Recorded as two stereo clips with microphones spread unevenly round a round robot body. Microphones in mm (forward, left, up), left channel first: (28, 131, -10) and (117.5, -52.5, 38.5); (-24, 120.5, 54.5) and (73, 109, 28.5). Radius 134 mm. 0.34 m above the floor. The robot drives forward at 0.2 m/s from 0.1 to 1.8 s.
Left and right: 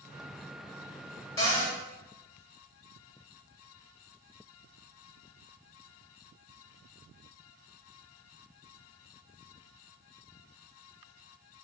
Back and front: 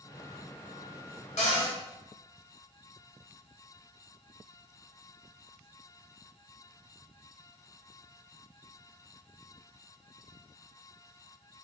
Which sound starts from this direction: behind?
A cupboard door, at 1.4 s.